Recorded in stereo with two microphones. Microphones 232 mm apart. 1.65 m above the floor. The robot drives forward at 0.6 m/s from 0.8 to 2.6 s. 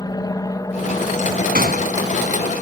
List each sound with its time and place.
0.0 s an aircraft: 15° left (ahead or behind); by 2.6 s 10° left (ahead or behind)
1.6 s a gunshot: 40° right (ahead or behind)